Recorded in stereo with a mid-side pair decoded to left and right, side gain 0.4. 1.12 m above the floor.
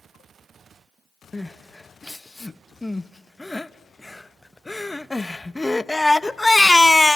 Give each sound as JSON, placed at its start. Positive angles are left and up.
{"t": 1.3, "sound": "crying", "azimuth_deg": 15, "distance_m": 0.6}